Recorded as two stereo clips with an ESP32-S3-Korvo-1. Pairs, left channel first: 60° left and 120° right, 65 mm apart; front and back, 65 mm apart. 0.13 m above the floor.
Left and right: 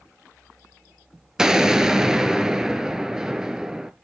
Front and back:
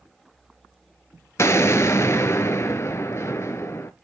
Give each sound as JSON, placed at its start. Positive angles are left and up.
{"t": 1.4, "sound": "an explosion", "azimuth_deg": -40, "distance_m": 0.6}